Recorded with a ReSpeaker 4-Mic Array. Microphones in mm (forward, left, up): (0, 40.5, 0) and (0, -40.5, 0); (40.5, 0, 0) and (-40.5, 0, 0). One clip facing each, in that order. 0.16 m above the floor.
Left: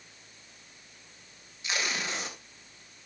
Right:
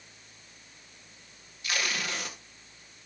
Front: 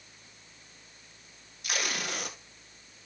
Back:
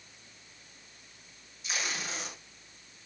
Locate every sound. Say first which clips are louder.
1.6 s tape being pulled: even, front 3 dB; 20° left, 1.8 m